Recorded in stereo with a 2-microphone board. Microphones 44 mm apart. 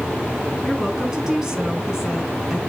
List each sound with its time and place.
0.6 s a woman speaking: 10° right (ahead or behind), 4.5 m